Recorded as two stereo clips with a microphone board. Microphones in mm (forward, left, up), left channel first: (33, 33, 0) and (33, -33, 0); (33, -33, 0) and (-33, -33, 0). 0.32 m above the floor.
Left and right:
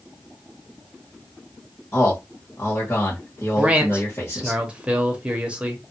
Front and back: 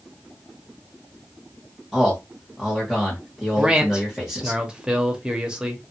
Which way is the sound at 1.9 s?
85° left.